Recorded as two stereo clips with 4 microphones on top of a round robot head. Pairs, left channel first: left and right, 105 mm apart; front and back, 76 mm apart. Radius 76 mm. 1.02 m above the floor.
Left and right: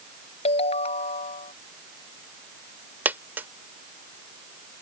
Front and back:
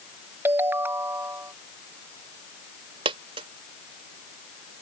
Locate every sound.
0.5 s a ringtone: 115° left
3.0 s a dropped coin: 165° right